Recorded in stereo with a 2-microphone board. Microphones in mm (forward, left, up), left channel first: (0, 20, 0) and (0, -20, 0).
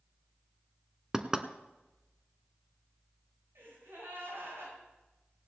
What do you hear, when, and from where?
1.1 s knocking: 20° right (ahead or behind), 0.7 m
3.5 s a gasp: 90° right, 7.5 m